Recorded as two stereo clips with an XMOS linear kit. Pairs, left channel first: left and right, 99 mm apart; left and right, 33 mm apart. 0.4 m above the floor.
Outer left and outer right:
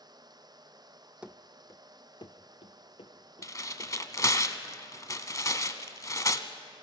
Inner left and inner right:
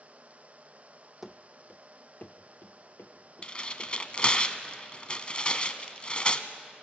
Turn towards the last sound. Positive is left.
turn(degrees=35)  # may be behind; listen again after turning